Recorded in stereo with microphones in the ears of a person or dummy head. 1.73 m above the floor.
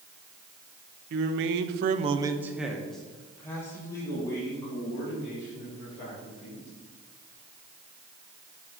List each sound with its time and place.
1.1 s a man speaking: 60° right (ahead or behind), 0.8 m; by 6.7 s 25° left (ahead or behind), 4 m